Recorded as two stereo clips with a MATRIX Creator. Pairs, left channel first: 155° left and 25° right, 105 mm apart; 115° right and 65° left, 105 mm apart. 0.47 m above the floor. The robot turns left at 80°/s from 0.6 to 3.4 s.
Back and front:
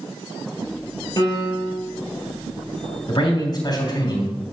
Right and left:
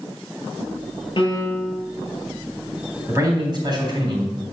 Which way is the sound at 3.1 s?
135° left.